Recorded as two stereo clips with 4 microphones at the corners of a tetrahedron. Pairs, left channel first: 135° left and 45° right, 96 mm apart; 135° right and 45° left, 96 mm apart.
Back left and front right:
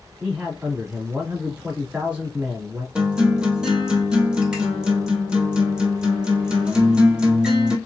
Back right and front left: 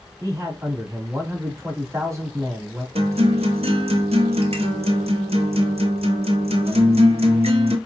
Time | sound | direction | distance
0.2 | a man speaking | 20° left | 1.7 m
3.0 | a guitar | 35° left | 0.8 m